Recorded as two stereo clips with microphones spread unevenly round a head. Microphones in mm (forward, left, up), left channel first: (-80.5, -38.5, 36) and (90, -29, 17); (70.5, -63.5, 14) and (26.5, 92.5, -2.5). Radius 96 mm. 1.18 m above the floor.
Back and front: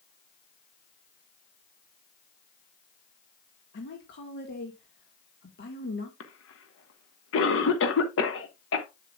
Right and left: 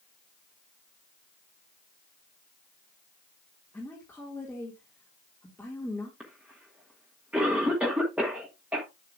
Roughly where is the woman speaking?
Behind right.